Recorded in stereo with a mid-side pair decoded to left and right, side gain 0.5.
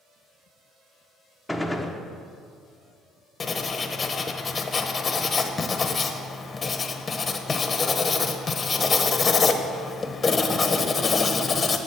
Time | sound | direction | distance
1.5 | a gunshot | 5° left | 1.1 m
3.4 | writing | 30° left | 1.1 m